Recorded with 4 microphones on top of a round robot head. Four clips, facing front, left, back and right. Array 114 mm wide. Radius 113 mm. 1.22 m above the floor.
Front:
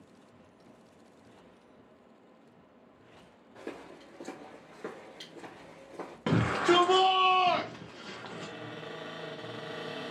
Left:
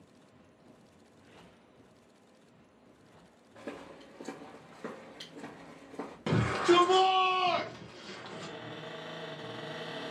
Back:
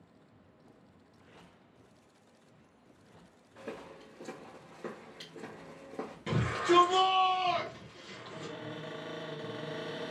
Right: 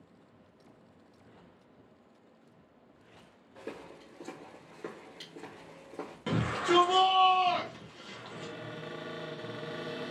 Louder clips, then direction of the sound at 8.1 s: Right 1 dB, even; 25° right.